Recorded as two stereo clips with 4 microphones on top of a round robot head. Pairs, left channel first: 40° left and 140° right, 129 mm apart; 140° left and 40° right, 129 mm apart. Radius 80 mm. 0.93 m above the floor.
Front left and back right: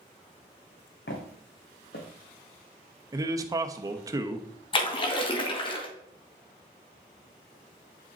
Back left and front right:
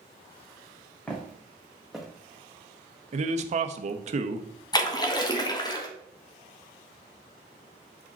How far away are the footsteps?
About 3 m.